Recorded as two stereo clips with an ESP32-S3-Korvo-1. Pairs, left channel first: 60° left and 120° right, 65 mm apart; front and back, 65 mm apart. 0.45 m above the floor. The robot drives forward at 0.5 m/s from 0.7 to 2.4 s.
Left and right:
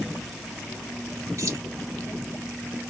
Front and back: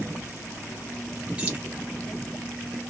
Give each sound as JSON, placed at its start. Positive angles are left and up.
{"t": 1.4, "sound": "keys jangling", "azimuth_deg": -115, "distance_m": 1.3}